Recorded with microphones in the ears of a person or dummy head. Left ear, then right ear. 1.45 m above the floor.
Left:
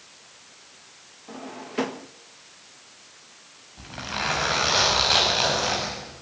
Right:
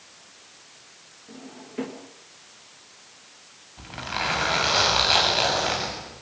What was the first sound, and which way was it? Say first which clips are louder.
A drawer: left 7 dB; 35° left (ahead or behind).